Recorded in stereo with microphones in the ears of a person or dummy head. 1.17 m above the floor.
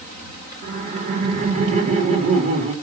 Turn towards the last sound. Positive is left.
turn(degrees=-35)  # may be behind; listen again after turning